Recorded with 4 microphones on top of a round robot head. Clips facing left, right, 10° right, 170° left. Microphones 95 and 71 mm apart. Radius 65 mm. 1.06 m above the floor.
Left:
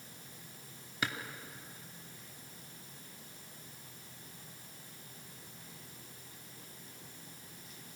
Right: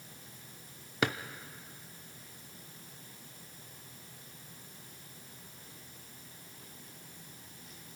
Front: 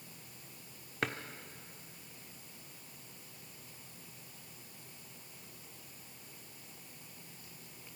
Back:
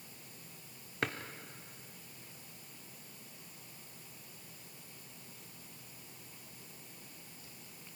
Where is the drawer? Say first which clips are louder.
Right 6 dB, even; 100° right, 0.8 m.